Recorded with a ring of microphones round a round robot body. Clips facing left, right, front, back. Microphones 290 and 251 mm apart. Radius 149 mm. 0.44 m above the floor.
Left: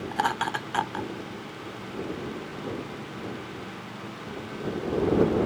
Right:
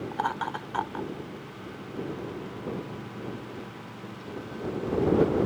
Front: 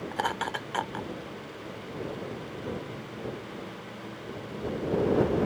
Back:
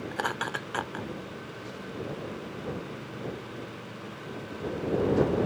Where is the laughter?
105° left.